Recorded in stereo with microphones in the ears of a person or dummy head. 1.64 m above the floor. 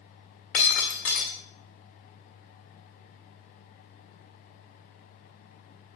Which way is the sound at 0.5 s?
45° left (ahead or behind).